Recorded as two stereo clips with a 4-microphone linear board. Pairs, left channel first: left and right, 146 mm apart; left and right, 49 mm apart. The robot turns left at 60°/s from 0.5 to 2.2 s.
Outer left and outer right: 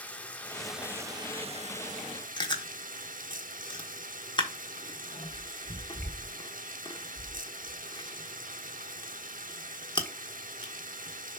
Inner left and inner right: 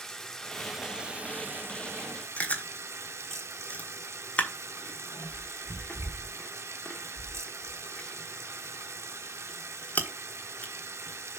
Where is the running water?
10° left, 0.8 m; by 11.4 s 90° right, 0.8 m.